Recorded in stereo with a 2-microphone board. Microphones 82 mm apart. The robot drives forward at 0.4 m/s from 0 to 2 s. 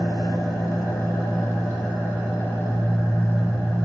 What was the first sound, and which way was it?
An engine running, 50° left (ahead or behind).